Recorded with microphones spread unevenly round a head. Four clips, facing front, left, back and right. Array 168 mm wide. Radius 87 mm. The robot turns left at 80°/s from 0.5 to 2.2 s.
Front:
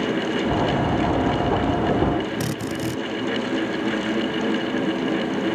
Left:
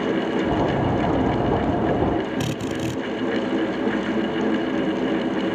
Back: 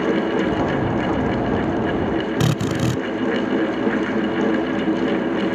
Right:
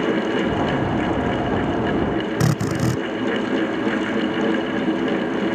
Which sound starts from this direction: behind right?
A drill, at 2.4 s.